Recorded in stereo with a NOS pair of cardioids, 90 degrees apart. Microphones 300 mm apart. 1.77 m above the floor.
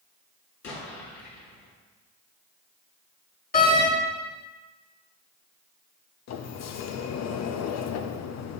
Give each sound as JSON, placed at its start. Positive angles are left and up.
{"t": 0.6, "sound": "an explosion", "azimuth_deg": 70, "distance_m": 3.0}
{"t": 3.5, "sound": "a door slam", "azimuth_deg": 30, "distance_m": 1.9}
{"t": 6.3, "sound": "a sliding door", "azimuth_deg": 65, "distance_m": 0.7}